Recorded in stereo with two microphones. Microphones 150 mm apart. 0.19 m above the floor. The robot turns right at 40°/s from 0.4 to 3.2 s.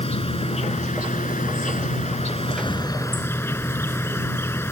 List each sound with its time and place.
0.0 s an insect: 50° left; by 4.7 s 160° left